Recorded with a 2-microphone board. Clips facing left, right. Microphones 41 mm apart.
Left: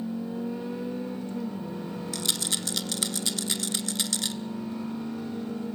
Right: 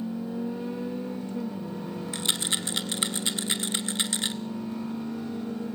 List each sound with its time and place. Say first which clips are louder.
2.1 s a rattle: right 3 dB; 30° right (ahead or behind), 0.9 m